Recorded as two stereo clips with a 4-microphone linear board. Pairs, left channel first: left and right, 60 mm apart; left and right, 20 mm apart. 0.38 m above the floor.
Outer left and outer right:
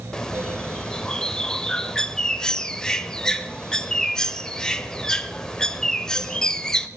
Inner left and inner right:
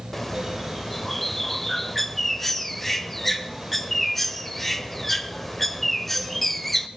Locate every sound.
0.1 s a bird: 10° left (ahead or behind), 0.7 m